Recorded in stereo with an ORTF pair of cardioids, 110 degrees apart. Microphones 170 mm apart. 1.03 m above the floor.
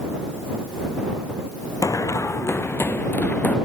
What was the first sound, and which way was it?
Running footsteps, 20° left.